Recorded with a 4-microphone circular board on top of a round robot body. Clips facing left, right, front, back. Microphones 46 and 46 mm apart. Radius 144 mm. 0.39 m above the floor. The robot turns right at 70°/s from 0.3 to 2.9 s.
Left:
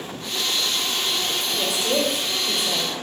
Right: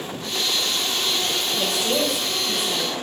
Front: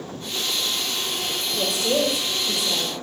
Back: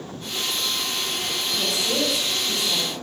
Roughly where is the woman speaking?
Ahead.